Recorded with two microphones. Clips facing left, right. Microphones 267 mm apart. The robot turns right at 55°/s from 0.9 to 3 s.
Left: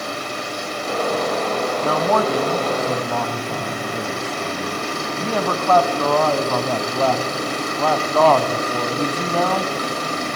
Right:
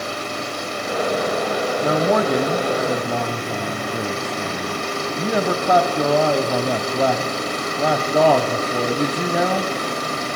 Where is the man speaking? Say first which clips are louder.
Right 2 dB; 15° right (ahead or behind), 1.0 m.